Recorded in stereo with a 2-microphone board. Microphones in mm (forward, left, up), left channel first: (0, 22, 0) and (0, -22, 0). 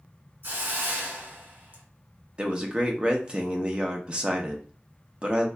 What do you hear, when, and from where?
0.4 s a hiss: 60° right (ahead or behind), 1.5 m
2.4 s a man speaking: 25° right (ahead or behind), 0.6 m